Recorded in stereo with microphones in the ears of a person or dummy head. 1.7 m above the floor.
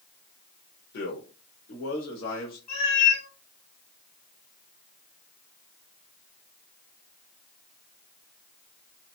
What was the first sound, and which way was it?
A man speaking, 55° left (ahead or behind).